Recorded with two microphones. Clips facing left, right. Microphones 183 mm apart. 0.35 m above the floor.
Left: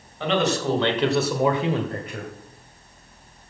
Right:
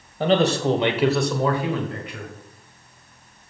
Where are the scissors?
No scissors in this recording.